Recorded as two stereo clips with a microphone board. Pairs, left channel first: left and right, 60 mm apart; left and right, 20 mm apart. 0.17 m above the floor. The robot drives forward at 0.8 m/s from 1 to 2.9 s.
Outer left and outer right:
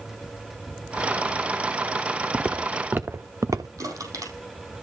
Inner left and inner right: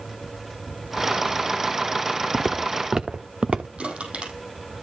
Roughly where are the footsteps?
Centre.